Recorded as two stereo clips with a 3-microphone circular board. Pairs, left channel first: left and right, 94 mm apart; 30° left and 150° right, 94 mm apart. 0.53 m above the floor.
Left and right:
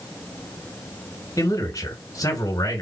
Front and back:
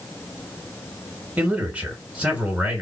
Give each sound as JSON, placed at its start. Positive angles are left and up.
{"t": 1.4, "sound": "a man speaking", "azimuth_deg": 135, "distance_m": 2.0}